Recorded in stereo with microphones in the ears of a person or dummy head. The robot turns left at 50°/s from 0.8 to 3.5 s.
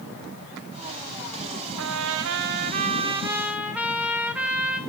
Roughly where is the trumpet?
Right.